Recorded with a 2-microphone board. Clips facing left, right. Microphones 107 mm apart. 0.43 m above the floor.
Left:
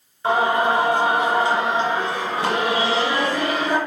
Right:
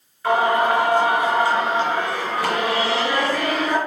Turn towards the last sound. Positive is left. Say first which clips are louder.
# right 1 dB
turn(degrees=20)  # may be behind; listen again after turning